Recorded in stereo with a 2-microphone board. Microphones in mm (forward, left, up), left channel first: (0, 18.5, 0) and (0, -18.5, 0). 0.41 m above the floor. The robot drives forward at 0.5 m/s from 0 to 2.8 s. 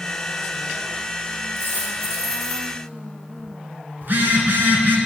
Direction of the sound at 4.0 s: 65° right (ahead or behind).